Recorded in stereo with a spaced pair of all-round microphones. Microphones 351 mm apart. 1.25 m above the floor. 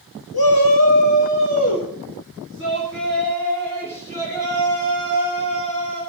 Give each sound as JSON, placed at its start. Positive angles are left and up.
{"t": 0.3, "sound": "a shout", "side_deg": 75, "distance_m": 1.0}